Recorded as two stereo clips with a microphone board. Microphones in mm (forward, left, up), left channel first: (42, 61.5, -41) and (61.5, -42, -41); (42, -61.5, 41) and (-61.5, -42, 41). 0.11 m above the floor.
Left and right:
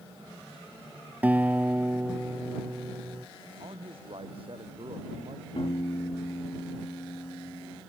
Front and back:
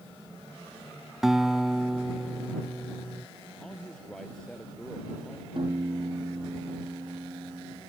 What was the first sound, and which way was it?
A guitar, 115° right.